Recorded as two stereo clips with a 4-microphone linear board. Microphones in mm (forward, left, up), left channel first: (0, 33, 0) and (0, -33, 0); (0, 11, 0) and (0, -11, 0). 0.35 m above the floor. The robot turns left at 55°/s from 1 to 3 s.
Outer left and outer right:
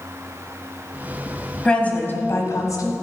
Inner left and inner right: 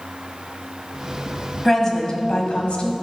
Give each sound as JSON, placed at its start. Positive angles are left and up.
{"t": 1.6, "sound": "a woman speaking", "azimuth_deg": 165, "distance_m": 1.7}